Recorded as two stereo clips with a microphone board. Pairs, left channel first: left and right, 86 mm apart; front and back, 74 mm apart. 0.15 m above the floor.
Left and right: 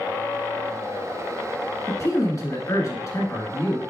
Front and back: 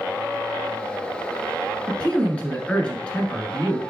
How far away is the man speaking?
About 1.4 m.